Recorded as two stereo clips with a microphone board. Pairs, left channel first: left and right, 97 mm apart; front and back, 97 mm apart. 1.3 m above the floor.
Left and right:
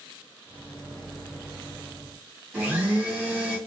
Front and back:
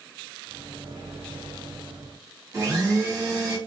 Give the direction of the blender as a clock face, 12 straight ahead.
5 o'clock.